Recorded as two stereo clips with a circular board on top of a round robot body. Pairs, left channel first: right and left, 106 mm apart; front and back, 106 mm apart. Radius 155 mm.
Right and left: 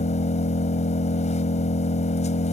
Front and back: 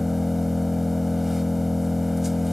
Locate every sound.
0.0 s an engine running: 90° right